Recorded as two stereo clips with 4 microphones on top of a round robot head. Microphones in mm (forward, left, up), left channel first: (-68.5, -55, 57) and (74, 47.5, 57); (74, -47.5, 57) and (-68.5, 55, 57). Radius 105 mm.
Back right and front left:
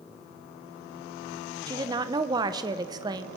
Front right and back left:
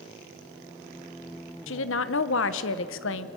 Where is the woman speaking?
30° right, 0.9 m.